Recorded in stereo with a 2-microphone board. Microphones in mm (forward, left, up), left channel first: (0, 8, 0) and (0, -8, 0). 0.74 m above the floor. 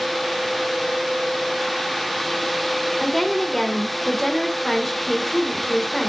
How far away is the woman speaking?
About 3 m.